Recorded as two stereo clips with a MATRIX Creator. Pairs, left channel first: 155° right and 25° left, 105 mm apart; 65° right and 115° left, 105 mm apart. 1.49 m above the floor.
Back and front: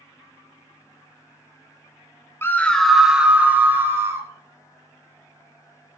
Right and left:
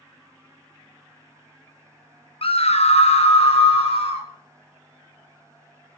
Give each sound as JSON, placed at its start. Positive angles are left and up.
{"t": 2.4, "sound": "a scream", "azimuth_deg": -90, "distance_m": 0.9}